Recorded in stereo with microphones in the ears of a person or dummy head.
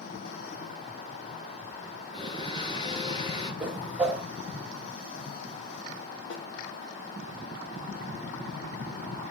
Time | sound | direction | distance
2.1 | a blender | 25° left (ahead or behind) | 9 m
3.6 | a whoosh | 5° right (ahead or behind) | 2 m
6.3 | a snare drum | 75° left (ahead or behind) | 4 m